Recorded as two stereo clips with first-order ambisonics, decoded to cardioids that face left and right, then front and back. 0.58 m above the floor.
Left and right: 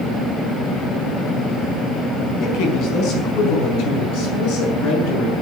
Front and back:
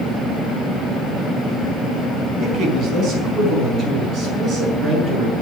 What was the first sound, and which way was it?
A man speaking, 125° left.